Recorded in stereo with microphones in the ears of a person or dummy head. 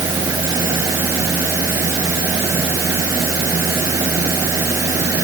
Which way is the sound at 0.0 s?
10° right (ahead or behind).